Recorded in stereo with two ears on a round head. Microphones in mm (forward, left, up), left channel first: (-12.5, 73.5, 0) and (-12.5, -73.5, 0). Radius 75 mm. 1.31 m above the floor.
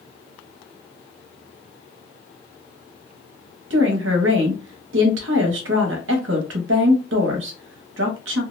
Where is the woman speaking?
75° right (ahead or behind), 0.8 m.